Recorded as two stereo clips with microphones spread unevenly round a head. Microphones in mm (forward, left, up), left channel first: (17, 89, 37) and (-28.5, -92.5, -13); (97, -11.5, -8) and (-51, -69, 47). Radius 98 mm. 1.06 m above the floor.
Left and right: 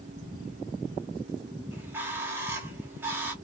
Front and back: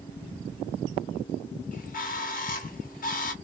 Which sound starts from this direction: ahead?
A bird, at 1.7 s.